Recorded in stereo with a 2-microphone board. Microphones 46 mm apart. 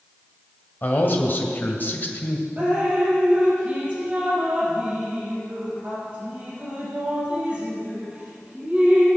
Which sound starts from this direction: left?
A man speaking, at 0.8 s.